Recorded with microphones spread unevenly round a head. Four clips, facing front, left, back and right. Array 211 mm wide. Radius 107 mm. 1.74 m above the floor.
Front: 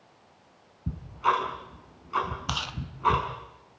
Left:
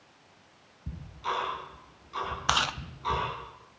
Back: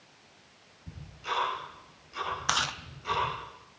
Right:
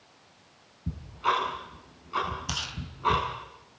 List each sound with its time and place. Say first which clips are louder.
0.9 s ticking: right 6 dB, front 11 dB; 20° right, 5.5 m
2.5 s chewing: left 10 dB, back 4 dB; 115° left, 0.9 m